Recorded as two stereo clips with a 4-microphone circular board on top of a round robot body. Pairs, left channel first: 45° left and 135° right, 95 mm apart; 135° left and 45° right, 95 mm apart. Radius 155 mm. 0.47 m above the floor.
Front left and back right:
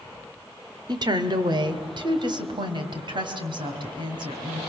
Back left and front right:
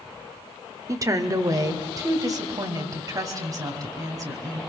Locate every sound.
0.9 s a woman speaking: 95° right, 1.9 m; by 4.6 s 100° right, 5.5 m